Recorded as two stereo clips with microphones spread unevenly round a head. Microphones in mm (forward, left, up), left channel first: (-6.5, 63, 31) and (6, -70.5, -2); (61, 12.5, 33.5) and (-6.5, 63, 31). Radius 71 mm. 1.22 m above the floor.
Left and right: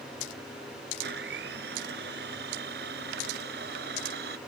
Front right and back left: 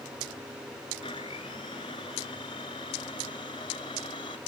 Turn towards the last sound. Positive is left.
turn(degrees=-90)